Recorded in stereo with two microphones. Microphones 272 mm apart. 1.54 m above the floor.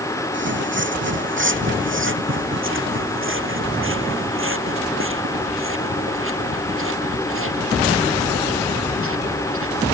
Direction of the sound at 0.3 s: 45° right (ahead or behind).